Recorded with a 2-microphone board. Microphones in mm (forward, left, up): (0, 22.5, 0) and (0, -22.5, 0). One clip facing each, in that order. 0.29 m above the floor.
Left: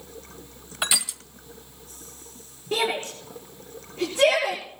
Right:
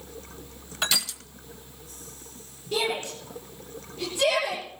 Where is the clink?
I don't hear a clink.